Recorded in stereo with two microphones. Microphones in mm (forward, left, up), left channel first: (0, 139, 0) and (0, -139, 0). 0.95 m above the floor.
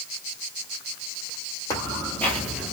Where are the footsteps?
10° left (ahead or behind), 1.4 m; by 2.7 s 5° right (ahead or behind), 0.9 m.